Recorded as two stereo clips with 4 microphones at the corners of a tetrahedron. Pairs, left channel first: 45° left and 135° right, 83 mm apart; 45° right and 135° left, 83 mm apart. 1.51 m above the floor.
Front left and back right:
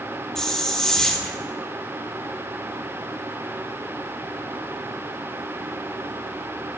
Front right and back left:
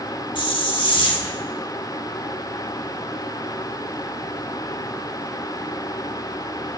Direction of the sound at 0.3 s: 40° right.